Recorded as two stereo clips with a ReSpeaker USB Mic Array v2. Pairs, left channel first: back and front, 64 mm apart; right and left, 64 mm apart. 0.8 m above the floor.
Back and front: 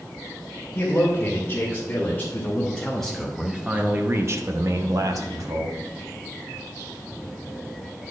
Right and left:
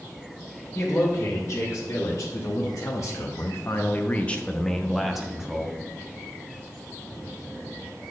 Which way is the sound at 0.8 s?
125° right.